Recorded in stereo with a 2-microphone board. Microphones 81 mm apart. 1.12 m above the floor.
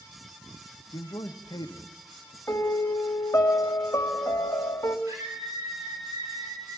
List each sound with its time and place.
0.9 s a man speaking: 60° left (ahead or behind), 1.4 m
2.5 s a piano: 35° left (ahead or behind), 2.5 m
5.1 s a scream: 50° right (ahead or behind), 4 m